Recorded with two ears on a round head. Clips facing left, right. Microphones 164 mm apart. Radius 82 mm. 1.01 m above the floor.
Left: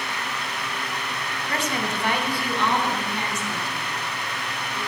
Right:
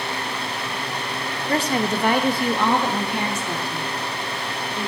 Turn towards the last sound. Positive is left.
turn(degrees=-55)  # may be behind; listen again after turning